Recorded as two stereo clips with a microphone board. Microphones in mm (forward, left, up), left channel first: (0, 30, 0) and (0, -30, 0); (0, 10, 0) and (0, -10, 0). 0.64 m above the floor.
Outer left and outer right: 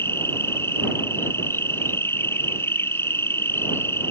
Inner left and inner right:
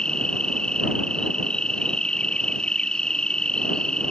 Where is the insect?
40° left (ahead or behind).